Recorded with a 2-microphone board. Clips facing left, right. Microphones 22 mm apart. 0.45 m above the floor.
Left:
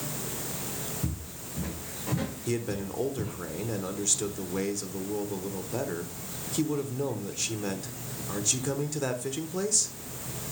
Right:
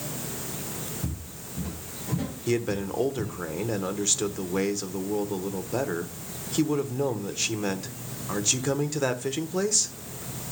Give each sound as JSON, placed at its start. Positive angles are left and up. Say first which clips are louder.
{"t": 1.0, "sound": "footsteps", "louder": "even", "side_deg": 75, "distance_m": 6.0}
{"t": 2.5, "sound": "a man speaking", "louder": "right 7 dB", "side_deg": -25, "distance_m": 1.0}